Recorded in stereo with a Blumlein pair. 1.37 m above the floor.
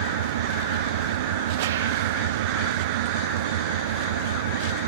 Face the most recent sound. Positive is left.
turn(degrees=-55)